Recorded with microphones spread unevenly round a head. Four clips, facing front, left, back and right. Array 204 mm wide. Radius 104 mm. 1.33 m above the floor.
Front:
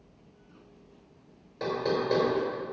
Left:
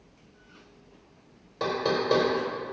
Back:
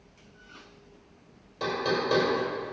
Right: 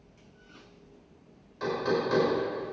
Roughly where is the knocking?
Left.